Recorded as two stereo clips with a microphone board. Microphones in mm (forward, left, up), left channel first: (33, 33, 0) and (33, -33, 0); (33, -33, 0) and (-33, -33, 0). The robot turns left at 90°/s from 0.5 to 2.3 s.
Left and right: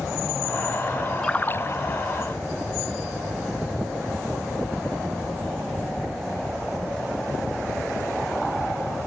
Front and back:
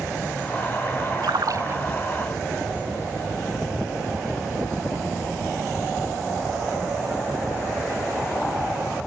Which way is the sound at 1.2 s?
170° left.